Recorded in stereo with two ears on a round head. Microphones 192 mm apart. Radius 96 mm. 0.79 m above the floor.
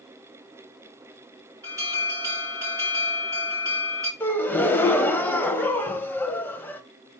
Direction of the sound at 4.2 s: 10° left (ahead or behind).